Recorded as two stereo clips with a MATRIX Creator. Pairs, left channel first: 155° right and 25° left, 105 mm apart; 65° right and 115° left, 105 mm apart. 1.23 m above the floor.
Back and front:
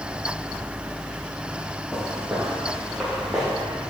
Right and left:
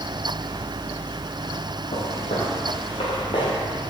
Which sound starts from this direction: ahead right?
Footsteps, at 1.9 s.